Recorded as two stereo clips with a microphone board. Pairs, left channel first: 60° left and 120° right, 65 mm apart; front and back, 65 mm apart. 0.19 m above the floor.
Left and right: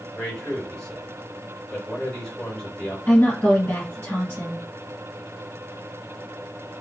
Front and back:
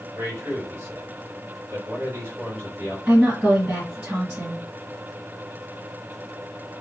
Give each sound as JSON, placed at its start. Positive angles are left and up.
{"t": 0.1, "sound": "a man speaking", "azimuth_deg": 135, "distance_m": 2.5}
{"t": 3.1, "sound": "a woman speaking", "azimuth_deg": 115, "distance_m": 1.9}